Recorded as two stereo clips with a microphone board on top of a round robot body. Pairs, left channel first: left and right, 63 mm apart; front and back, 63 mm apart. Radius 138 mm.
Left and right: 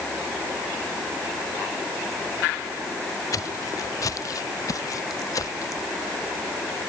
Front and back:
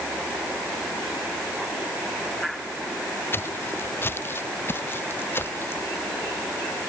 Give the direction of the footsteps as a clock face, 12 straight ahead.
10 o'clock.